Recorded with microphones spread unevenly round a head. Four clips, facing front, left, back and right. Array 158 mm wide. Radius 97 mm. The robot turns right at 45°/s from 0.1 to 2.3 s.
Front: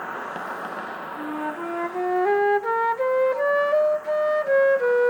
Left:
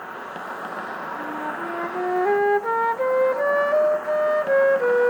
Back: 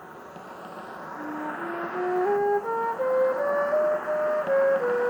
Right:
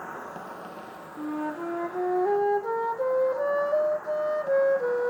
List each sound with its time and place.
0.0 s an insect: 20° left, 0.7 m; by 5.1 s 120° left, 0.7 m
1.2 s a flute: straight ahead, 0.5 m; by 5.1 s 50° left, 0.5 m